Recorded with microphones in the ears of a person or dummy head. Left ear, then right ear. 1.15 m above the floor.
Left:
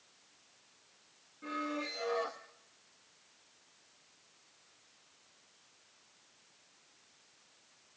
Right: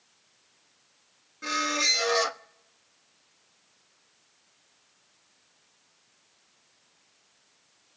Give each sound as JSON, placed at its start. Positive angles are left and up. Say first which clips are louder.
{"t": 1.4, "sound": "a squeak", "louder": "right 13 dB", "side_deg": -70, "distance_m": 0.8}